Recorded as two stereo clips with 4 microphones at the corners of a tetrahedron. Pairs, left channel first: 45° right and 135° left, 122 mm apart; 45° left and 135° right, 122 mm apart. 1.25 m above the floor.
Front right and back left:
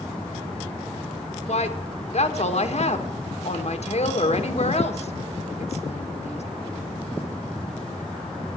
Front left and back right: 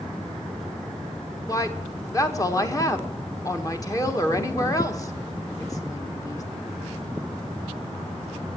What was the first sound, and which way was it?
A woman speaking, 15° right.